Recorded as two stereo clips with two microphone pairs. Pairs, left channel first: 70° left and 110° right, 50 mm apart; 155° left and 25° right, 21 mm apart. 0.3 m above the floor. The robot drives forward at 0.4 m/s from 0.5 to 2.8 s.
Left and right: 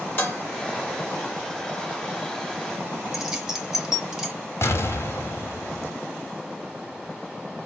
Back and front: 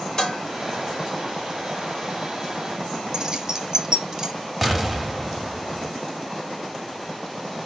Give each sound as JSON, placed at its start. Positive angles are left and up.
{"t": 0.2, "sound": "dishes clattering", "azimuth_deg": 110, "distance_m": 1.1}
{"t": 3.1, "sound": "keys jangling", "azimuth_deg": -55, "distance_m": 0.5}
{"t": 4.6, "sound": "an explosion", "azimuth_deg": 60, "distance_m": 0.6}